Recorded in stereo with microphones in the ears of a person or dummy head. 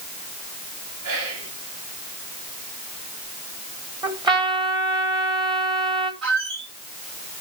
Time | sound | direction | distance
1.0 | whispering | 80° right | 4 m
4.0 | a trumpet | 20° right (ahead or behind) | 2 m
6.2 | a squeak | 60° right (ahead or behind) | 8.5 m